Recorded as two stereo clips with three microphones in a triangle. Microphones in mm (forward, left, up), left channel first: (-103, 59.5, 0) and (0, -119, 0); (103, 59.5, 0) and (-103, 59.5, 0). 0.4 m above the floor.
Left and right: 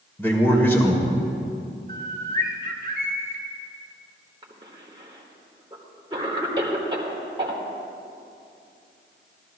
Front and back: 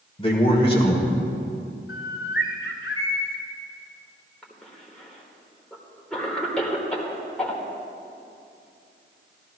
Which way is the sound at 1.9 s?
15° right.